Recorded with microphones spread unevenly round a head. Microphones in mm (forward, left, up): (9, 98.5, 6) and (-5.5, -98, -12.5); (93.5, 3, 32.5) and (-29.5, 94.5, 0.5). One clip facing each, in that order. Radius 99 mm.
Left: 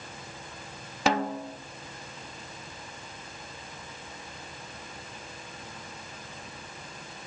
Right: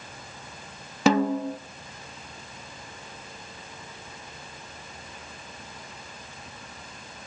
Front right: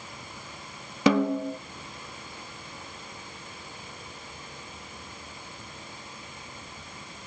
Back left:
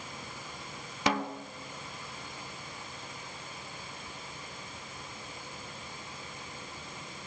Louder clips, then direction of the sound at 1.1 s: Right 7 dB, front right 10 dB; 75° right.